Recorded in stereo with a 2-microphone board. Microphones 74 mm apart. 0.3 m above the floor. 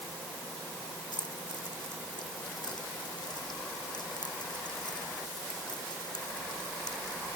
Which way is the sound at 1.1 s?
70° left (ahead or behind).